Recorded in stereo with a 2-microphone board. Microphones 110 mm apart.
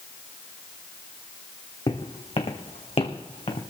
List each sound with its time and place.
1.9 s footsteps: 60° left (ahead or behind), 1.7 m; by 3.6 s 75° left (ahead or behind), 1.9 m